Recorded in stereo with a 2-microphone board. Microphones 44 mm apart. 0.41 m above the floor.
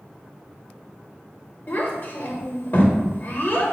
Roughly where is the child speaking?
Left.